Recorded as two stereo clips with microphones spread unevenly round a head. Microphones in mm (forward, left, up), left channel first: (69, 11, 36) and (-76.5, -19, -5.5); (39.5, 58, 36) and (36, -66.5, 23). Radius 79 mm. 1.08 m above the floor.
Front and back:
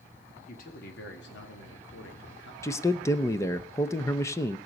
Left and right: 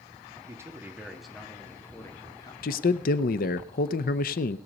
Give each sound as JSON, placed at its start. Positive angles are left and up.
{"t": 0.5, "sound": "a man speaking", "azimuth_deg": -25, "distance_m": 1.7}
{"t": 2.6, "sound": "a man speaking", "azimuth_deg": 85, "distance_m": 0.6}